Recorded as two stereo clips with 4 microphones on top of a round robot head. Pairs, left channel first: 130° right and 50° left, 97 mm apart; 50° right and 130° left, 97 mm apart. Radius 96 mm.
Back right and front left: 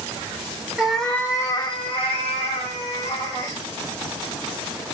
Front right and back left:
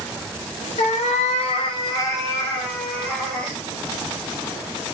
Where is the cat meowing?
35° right, 0.7 m; by 3.6 s 130° right, 1.7 m.